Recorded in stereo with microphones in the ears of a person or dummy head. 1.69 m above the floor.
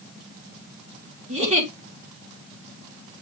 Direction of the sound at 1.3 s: 35° right (ahead or behind).